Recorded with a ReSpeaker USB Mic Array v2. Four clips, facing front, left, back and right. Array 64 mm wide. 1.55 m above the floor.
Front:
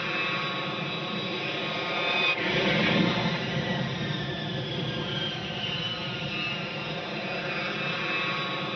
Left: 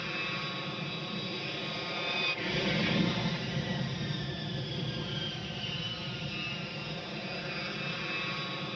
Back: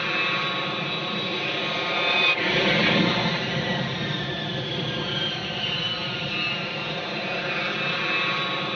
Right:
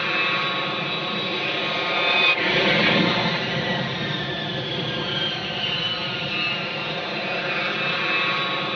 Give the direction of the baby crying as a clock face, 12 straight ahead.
No baby crying in this recording.